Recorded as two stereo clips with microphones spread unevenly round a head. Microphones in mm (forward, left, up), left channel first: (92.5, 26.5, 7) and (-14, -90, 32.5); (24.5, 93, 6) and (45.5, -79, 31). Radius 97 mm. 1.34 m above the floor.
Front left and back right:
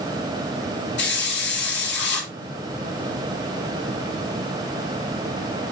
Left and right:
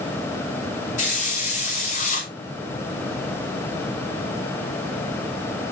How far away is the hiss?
About 6.5 m.